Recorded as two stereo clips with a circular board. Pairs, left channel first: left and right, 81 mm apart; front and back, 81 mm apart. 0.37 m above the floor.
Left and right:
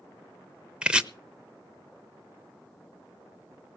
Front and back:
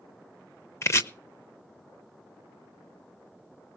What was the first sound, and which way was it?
Chopping, 20° right.